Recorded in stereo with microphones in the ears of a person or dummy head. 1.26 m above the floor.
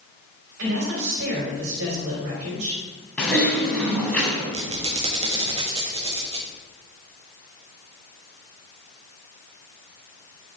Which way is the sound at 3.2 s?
5° left (ahead or behind).